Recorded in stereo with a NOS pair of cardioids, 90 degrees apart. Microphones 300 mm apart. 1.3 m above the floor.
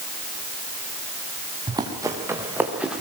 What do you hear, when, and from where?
1.7 s running footsteps: 15° right, 5.5 m; by 3.0 s straight ahead, 5.5 m